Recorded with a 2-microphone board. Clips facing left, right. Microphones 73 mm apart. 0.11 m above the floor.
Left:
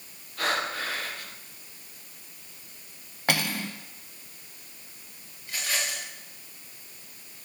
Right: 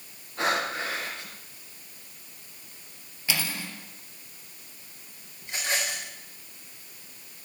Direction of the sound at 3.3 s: 55° left (ahead or behind).